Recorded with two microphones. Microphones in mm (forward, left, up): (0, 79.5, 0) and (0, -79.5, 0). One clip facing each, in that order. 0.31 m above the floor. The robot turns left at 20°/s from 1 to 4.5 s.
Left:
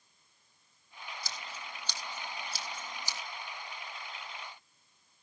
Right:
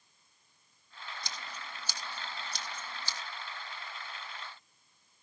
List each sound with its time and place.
1.2 s scissors: 25° right (ahead or behind), 2.5 m; by 3.2 s 15° left (ahead or behind), 2.5 m